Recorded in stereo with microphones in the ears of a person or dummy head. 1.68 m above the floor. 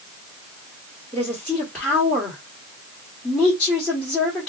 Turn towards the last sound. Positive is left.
turn(degrees=10)  # may be behind; listen again after turning